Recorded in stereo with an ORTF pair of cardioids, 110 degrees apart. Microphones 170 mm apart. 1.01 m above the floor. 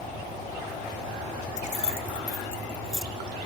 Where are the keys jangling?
45° left, 1.1 m; by 3.1 s straight ahead, 1.3 m.